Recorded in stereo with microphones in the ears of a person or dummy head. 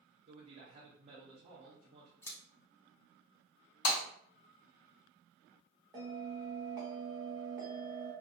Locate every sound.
0.2 s a man speaking: 25° right (ahead or behind), 0.5 m
2.2 s scissors: 15° left (ahead or behind), 0.6 m
3.9 s breaking glass: 60° left (ahead or behind), 1.3 m
5.9 s a bell: 10° right (ahead or behind), 0.7 m